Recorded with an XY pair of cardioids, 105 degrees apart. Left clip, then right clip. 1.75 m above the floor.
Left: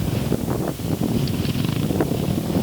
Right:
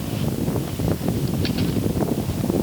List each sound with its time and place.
Only background noise.